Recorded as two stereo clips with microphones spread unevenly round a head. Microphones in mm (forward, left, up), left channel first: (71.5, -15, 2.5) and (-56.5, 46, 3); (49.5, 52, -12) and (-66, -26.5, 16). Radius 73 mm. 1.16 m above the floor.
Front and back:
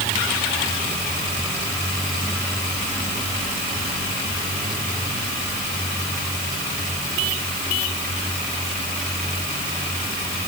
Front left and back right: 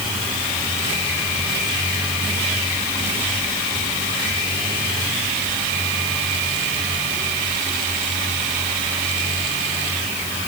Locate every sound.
Only background noise.